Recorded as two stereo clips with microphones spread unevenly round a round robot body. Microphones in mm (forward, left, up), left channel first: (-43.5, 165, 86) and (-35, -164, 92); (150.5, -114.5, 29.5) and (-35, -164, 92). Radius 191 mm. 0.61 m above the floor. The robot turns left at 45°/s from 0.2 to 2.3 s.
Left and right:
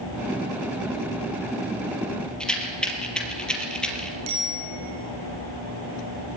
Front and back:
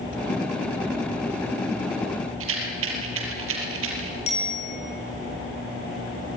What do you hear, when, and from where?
2.4 s a rattle: straight behind, 4 m
4.3 s a bicycle bell: 40° right, 10 m